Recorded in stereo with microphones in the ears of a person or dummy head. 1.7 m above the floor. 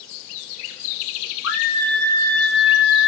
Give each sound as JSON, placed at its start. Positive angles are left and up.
{"t": 1.4, "sound": "a scream", "side_deg": 80, "distance_m": 1.0}